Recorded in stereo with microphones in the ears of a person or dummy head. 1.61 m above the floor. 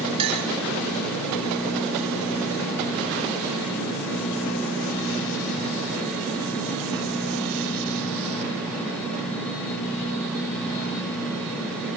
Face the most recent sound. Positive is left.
turn(degrees=-25)  # may be behind; listen again after turning